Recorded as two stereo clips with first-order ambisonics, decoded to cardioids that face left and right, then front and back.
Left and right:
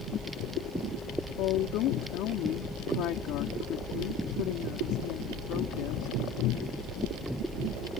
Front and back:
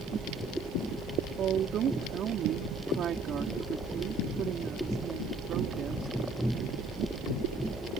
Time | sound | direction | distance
1.4 | a woman speaking | 125° left | ?